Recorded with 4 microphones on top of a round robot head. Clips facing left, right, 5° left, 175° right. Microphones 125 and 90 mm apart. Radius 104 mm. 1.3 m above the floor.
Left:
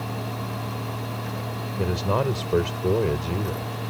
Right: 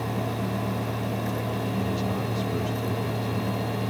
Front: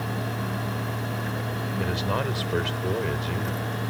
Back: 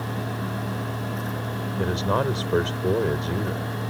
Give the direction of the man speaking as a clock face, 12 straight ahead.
8 o'clock.